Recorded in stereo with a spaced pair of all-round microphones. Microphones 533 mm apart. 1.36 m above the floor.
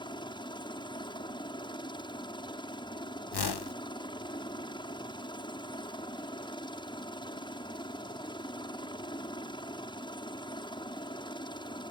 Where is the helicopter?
10° left (ahead or behind).